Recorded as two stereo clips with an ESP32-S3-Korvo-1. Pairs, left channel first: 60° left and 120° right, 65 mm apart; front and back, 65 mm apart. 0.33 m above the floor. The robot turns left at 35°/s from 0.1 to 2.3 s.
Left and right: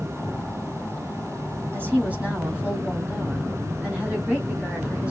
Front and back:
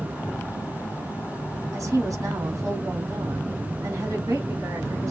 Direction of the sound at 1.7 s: 170° right.